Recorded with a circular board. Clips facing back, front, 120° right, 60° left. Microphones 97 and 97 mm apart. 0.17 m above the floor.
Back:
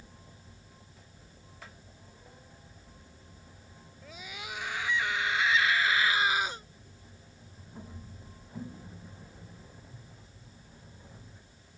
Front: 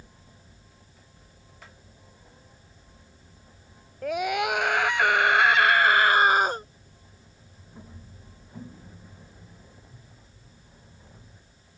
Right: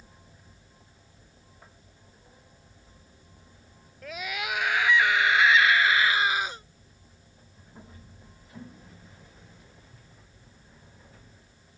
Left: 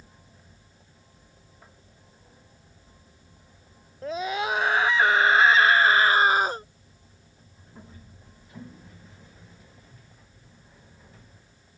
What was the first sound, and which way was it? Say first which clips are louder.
A scream: front 19 dB, left 7 dB; straight ahead.